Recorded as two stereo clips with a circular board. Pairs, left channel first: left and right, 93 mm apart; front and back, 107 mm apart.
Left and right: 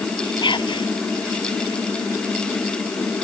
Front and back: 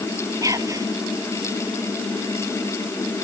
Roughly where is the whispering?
Behind left.